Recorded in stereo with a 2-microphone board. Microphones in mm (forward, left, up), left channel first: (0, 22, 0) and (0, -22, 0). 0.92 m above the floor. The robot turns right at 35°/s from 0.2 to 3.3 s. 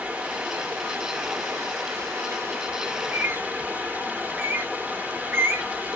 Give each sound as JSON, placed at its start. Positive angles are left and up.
{"t": 0.0, "sound": "running water", "azimuth_deg": -145, "distance_m": 1.4}
{"t": 2.9, "sound": "a bird", "side_deg": -60, "distance_m": 0.9}